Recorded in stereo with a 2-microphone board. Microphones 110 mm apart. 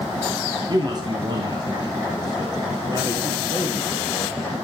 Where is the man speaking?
40° right (ahead or behind), 1.3 m; by 4.5 s 35° right (ahead or behind), 3 m.